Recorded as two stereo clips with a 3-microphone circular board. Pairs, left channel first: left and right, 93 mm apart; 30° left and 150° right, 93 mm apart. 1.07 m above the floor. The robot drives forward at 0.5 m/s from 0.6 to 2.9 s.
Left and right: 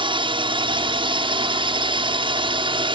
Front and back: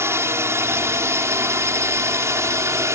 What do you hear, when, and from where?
0.0 s a drone: 90° right; by 3.0 s 95° right